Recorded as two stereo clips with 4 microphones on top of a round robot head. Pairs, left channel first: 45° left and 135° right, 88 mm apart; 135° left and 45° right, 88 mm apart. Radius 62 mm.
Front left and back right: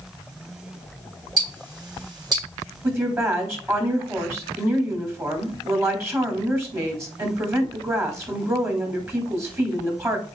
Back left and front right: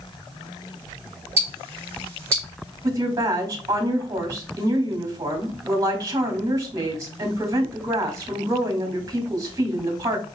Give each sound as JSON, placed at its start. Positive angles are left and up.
{"t": 1.4, "sound": "ticking", "azimuth_deg": -100, "distance_m": 2.5}
{"t": 2.8, "sound": "a woman speaking", "azimuth_deg": -85, "distance_m": 1.6}